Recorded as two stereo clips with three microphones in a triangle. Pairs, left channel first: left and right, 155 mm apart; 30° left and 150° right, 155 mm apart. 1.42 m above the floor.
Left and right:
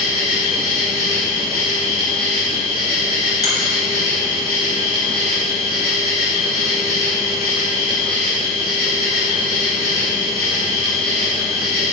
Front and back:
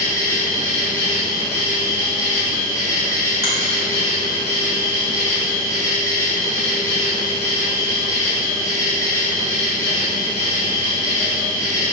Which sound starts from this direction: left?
An insect, at 0.0 s.